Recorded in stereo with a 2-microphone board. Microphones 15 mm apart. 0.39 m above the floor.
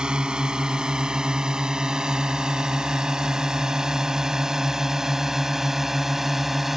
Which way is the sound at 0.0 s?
65° right (ahead or behind).